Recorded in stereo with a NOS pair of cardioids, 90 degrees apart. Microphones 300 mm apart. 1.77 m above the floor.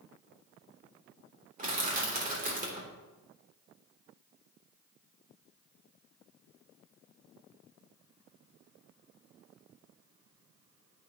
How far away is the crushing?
About 2.5 m.